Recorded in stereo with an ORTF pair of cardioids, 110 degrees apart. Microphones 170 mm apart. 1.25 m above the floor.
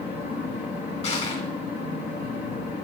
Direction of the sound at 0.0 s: 70° left.